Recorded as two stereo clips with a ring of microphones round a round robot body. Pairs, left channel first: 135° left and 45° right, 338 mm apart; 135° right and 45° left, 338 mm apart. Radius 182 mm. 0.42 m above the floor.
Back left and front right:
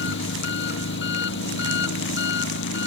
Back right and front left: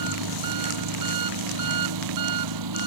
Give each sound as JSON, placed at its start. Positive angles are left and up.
{"t": 0.0, "sound": "an engine running", "azimuth_deg": 75}